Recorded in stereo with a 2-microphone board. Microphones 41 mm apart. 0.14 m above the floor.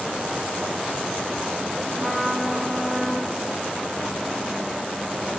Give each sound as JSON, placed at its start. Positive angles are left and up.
{"t": 2.0, "sound": "a trumpet", "side_deg": -10, "distance_m": 0.9}